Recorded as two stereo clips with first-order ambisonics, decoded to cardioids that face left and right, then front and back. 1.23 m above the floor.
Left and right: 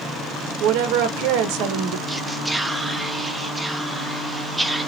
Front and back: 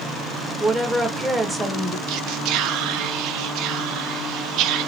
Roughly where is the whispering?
Behind.